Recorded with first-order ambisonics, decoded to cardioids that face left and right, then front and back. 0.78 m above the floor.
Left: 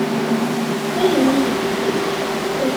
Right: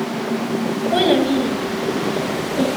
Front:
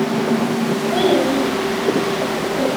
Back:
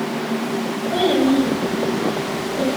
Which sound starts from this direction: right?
A child speaking, at 0.9 s.